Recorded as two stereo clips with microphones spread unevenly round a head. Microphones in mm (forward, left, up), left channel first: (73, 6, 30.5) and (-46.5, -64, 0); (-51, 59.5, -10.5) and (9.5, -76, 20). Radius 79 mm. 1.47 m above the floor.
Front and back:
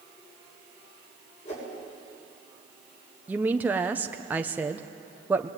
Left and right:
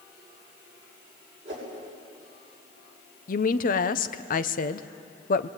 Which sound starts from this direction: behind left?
A woman speaking, at 3.3 s.